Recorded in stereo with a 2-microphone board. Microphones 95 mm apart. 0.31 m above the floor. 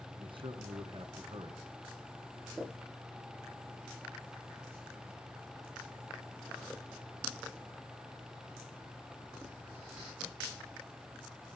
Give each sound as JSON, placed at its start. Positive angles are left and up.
{"t": 0.2, "sound": "a man speaking", "side_deg": -65, "distance_m": 2.5}